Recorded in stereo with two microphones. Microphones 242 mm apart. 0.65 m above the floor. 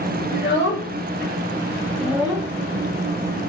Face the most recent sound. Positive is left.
turn(degrees=-15)  # may be behind; listen again after turning